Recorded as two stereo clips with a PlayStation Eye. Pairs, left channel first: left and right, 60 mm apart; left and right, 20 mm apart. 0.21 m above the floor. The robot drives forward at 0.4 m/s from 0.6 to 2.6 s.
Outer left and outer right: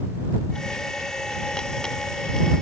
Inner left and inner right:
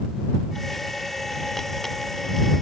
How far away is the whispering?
No whispering in this recording.